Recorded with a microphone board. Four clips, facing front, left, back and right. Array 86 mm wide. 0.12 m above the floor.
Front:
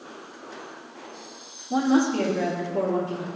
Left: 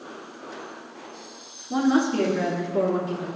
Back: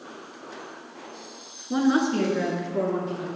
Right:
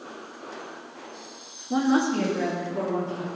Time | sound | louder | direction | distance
1.7 | a woman speaking | left 1 dB, front 1 dB | 155° right | 1.8 m